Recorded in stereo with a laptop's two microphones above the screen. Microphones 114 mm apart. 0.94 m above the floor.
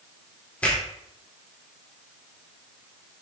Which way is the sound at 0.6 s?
15° left (ahead or behind).